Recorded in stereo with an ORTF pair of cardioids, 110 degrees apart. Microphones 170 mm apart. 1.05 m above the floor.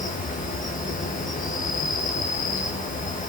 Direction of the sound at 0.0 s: 50° left.